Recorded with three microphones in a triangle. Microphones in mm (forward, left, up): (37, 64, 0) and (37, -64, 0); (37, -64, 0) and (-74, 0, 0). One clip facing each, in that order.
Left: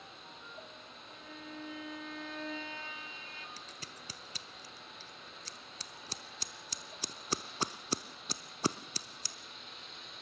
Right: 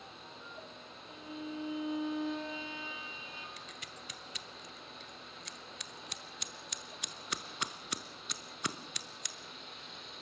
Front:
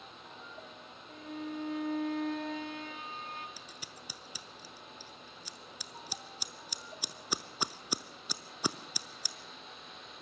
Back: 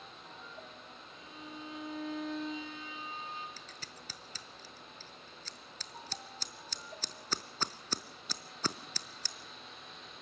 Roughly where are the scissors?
Ahead left.